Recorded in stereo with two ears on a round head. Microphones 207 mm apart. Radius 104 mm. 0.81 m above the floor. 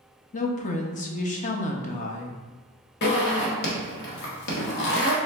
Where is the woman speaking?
35° left (ahead or behind), 0.6 m.